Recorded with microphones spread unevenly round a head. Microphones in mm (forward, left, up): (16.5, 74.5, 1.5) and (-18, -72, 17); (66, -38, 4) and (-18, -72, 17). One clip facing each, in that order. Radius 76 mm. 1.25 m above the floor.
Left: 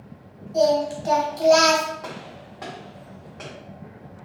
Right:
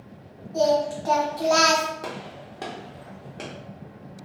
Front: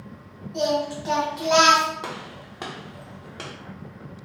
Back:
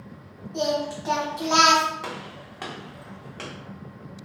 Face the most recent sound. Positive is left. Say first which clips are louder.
# right 1 dB, front 1 dB
turn(degrees=-50)